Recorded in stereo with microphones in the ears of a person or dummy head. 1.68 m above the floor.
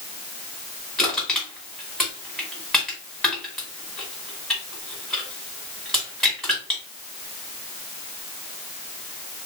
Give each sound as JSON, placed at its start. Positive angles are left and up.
{"t": 1.0, "sound": "crushing", "side_deg": 0, "distance_m": 2.0}